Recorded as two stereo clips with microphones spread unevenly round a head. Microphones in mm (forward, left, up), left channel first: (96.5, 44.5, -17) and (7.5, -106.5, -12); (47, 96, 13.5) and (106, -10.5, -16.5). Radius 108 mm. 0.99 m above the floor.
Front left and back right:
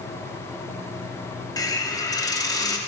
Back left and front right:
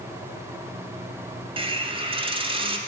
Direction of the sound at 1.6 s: 10° right.